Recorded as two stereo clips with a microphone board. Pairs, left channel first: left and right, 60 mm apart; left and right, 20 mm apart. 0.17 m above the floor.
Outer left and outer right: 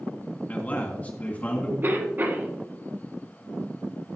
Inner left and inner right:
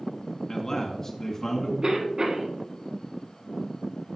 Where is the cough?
35° right (ahead or behind), 1.4 m.